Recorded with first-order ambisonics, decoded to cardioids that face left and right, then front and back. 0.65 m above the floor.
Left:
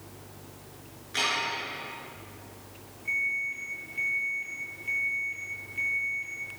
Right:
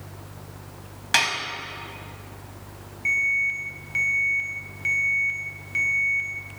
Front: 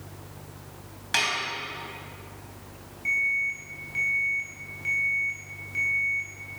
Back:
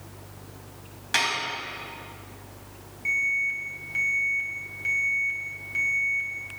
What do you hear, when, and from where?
1.1 s dishes clattering: 90° right, 3 m
3.0 s an alarm: 95° right, 3.5 m